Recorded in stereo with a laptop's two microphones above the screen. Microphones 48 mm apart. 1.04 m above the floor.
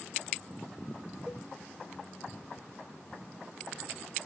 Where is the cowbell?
15° right (ahead or behind), 1.2 m.